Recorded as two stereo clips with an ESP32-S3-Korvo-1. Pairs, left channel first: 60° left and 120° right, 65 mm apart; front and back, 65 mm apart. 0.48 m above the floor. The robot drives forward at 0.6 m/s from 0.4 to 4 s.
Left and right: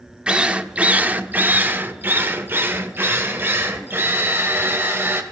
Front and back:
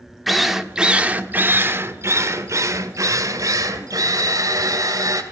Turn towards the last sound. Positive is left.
turn(degrees=-170)